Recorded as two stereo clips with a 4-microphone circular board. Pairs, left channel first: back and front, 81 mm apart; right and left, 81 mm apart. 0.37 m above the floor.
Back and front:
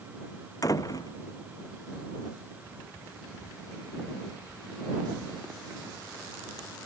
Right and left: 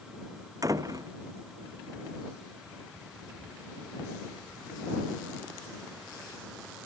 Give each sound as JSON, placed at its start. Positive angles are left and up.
{"t": 0.6, "sound": "a door slam", "azimuth_deg": 135}